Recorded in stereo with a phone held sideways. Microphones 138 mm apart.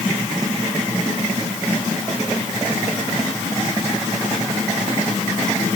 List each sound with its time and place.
Only background noise.